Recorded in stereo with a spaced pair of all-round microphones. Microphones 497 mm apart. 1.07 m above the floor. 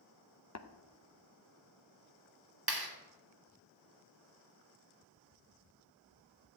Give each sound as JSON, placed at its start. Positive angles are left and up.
{"t": 0.6, "sound": "tapping", "side_deg": 35, "distance_m": 0.7}
{"t": 2.7, "sound": "a clap", "side_deg": -45, "distance_m": 2.0}